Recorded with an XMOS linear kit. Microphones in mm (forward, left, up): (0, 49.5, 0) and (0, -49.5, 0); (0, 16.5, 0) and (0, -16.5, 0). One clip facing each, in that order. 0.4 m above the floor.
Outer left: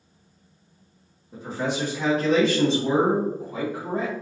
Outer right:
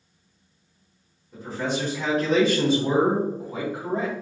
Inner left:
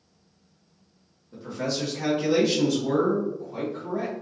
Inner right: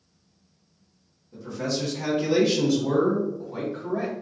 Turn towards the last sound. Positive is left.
turn(degrees=-35)  # may be behind; listen again after turning